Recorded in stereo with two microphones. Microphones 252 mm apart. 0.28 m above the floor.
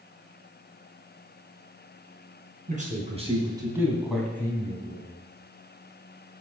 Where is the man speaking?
30° right (ahead or behind), 3 m; by 5.1 s 25° left (ahead or behind), 2.5 m.